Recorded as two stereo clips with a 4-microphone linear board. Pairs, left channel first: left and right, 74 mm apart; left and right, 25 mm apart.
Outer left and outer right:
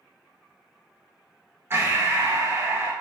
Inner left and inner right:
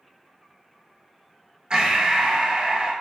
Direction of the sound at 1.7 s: 35° right (ahead or behind).